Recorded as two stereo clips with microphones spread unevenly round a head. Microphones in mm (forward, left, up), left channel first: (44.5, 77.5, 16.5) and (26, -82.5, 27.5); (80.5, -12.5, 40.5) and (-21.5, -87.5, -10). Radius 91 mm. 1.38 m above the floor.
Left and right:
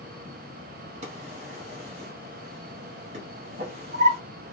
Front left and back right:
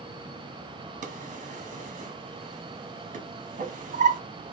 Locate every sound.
1.0 s a drawer: 120° right, 0.8 m